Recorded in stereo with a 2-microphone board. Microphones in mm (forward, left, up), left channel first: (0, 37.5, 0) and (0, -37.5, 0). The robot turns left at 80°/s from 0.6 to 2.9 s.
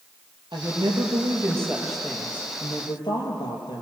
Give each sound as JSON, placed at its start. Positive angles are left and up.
{"t": 0.5, "sound": "a woman speaking", "azimuth_deg": -65, "distance_m": 6.0}